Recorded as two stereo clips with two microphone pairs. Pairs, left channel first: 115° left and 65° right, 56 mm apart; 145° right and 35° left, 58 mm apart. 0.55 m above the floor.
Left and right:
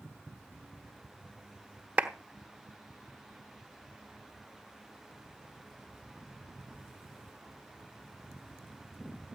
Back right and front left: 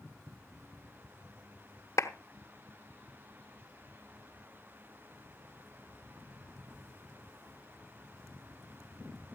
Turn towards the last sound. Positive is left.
turn(degrees=-130)